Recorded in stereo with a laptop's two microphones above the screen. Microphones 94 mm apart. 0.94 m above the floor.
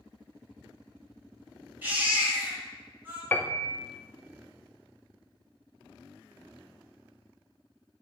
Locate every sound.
1.8 s a baby crying: 20° right (ahead or behind), 3 m
3.3 s a piano: 20° left (ahead or behind), 0.5 m